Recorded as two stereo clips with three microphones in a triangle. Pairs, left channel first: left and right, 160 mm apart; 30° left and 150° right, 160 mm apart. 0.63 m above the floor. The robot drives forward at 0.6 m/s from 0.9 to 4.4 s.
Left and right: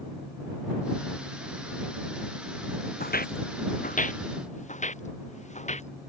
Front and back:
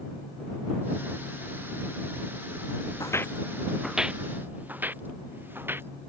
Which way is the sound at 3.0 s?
95° left.